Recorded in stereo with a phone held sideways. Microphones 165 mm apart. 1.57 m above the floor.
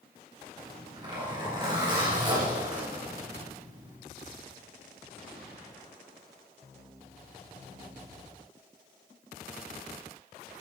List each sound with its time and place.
0.6 s a zipper: 25° right (ahead or behind), 3.5 m